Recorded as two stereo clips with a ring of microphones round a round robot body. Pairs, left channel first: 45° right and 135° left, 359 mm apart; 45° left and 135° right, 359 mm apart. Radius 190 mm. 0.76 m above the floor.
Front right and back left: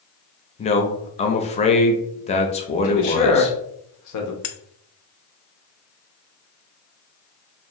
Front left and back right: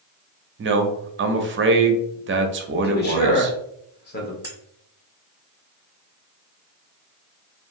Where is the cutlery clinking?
55° right, 0.5 m.